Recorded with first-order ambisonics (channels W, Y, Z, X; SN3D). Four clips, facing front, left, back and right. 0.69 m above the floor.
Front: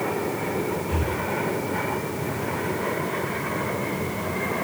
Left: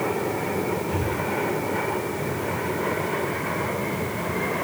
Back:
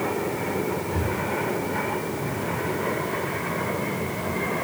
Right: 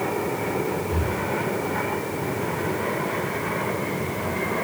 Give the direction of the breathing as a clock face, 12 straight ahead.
11 o'clock.